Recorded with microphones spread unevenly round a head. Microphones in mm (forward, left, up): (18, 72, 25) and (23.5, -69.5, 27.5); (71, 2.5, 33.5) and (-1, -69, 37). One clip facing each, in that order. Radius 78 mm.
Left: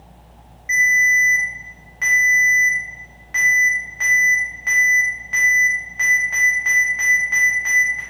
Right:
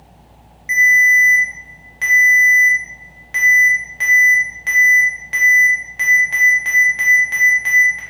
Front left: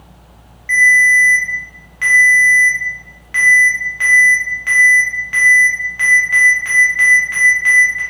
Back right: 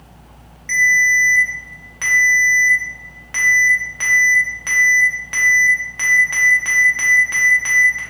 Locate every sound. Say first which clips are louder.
0.7 s a ringtone: right 4 dB, front left 4 dB; 115° right, 0.7 m